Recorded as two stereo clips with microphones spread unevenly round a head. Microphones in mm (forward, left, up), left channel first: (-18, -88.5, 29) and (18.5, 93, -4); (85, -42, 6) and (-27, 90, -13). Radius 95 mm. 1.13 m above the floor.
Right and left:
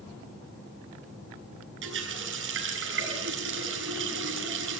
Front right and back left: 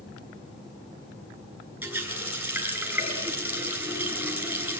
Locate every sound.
1.8 s a running tap: 55° left, 6.5 m